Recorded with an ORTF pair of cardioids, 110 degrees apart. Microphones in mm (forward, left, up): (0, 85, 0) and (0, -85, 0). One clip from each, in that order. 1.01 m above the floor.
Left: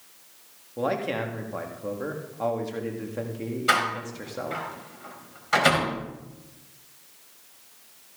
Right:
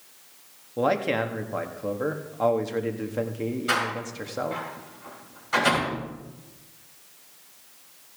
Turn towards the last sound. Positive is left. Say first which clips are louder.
# left 4 dB
turn(degrees=40)